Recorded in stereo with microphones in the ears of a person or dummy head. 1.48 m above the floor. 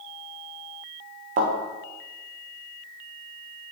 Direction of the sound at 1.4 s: 35° right (ahead or behind).